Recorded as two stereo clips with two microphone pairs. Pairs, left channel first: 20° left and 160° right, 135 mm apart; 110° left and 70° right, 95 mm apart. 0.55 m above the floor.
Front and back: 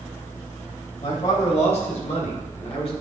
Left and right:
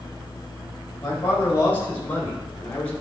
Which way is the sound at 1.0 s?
50° left.